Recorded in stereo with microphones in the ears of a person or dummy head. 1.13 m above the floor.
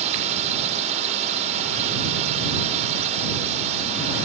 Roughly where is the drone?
Right.